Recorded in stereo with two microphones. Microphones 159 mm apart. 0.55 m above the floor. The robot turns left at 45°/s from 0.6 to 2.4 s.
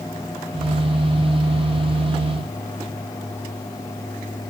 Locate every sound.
Only background noise.